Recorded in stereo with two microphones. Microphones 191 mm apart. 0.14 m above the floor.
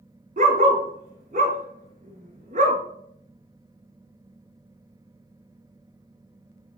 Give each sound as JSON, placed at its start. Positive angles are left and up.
{"t": 0.4, "sound": "a dog barking", "side_deg": -45, "distance_m": 0.6}